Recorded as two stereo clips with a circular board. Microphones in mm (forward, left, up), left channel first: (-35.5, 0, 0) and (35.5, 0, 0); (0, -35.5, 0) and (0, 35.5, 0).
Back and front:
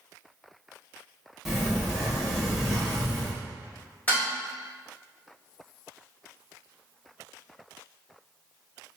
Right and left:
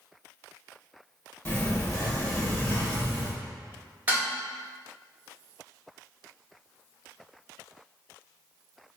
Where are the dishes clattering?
135° left, 0.8 m.